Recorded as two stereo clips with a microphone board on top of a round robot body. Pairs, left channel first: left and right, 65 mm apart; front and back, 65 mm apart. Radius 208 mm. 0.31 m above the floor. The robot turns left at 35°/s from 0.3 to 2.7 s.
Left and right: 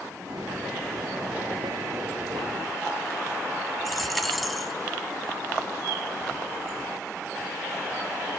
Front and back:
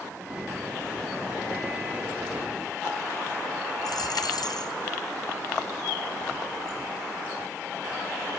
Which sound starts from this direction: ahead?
A dropped coin, at 3.9 s.